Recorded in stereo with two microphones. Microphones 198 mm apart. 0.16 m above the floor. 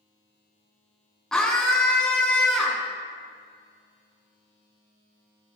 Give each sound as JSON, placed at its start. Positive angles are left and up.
{"t": 1.3, "sound": "a scream", "side_deg": 5, "distance_m": 1.1}